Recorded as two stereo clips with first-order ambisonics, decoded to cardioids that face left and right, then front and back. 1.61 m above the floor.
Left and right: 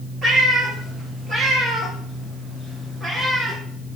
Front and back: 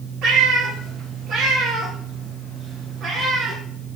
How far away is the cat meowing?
About 3 m.